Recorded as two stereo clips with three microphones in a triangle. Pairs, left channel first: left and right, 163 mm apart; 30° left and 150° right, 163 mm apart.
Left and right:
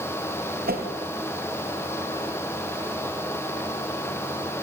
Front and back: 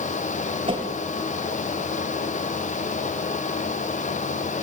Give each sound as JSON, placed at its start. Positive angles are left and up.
{"t": 0.7, "sound": "a whoosh", "azimuth_deg": -95, "distance_m": 4.0}